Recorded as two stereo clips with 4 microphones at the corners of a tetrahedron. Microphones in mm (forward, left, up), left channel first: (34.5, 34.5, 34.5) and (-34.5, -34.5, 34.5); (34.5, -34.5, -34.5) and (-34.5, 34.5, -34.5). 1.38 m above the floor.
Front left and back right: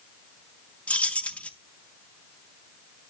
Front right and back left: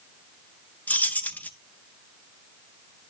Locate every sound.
0.9 s keys jangling: 5° right, 0.6 m